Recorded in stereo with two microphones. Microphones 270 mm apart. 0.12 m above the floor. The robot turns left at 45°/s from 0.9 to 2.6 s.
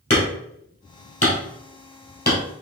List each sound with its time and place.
0.1 s hammering: 60° left (ahead or behind), 1.6 m; by 2.4 s 30° left (ahead or behind), 1.6 m